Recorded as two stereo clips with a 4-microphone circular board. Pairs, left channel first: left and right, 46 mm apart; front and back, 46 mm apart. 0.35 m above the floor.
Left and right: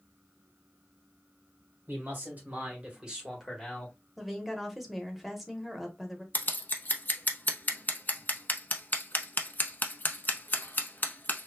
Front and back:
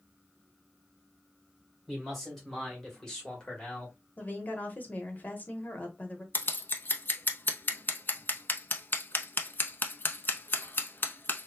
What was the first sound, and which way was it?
A man speaking, 90° right.